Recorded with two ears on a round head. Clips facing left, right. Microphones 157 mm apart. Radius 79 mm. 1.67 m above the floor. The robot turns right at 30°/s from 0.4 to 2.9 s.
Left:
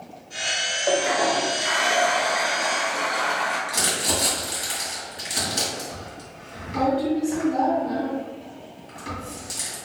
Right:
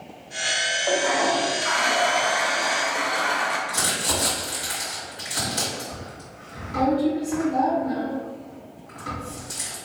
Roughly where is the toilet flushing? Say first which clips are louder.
Left 1 dB; centre.